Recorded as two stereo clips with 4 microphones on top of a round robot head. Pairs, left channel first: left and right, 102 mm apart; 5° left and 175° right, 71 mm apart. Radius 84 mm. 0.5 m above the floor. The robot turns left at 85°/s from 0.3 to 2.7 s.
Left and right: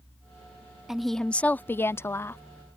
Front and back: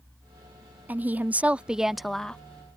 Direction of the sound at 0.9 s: 170° right.